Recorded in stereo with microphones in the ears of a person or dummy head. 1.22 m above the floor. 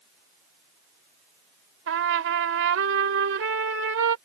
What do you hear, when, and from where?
1.9 s a trumpet: 75° right (ahead or behind)